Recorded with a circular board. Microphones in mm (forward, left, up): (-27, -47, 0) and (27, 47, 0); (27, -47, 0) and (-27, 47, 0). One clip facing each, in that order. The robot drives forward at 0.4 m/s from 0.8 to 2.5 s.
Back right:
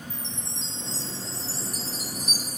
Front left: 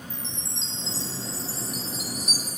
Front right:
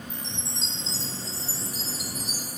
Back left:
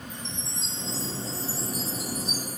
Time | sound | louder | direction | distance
0.1 | a chime | even, even | 45° right | 1.1 m